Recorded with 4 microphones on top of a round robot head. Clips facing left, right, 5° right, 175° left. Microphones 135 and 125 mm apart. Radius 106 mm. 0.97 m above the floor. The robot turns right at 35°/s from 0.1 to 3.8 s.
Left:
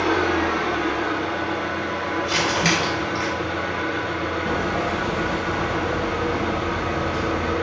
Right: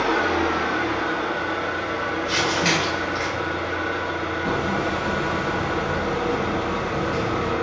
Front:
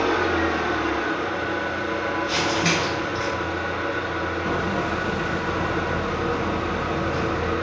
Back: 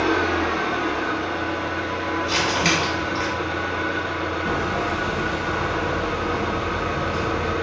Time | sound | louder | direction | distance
0.0 | an engine running | left 1 dB, even | 30° right | 0.9 m
2.2 | crumpling | left 1 dB, back 1 dB | 115° left | 1.2 m
4.4 | hammering | right 1 dB, back 1 dB | 85° right | 0.8 m